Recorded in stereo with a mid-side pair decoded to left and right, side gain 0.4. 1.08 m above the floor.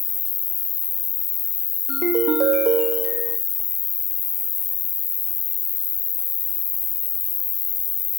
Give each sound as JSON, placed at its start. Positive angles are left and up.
{"t": 0.0, "sound": "an insect", "azimuth_deg": 65, "distance_m": 0.7}
{"t": 1.9, "sound": "a ringtone", "azimuth_deg": -60, "distance_m": 1.8}